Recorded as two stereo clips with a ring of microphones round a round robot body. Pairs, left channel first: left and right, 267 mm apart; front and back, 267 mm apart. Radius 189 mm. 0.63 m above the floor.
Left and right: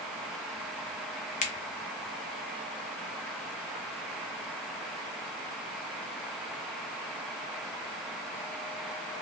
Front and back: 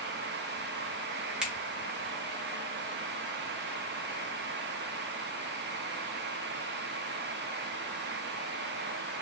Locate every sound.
1.4 s a finger snap: 100° left, 0.6 m